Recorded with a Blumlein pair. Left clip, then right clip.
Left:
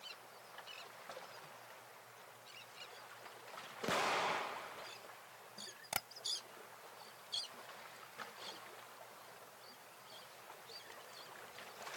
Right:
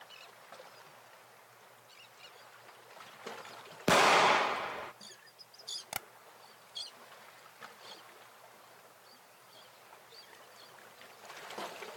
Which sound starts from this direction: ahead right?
An explosion, at 3.9 s.